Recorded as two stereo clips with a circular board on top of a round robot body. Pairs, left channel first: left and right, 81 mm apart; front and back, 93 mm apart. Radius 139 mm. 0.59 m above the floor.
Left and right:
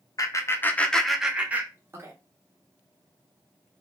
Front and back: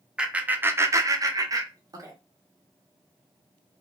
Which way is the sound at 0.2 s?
100° left.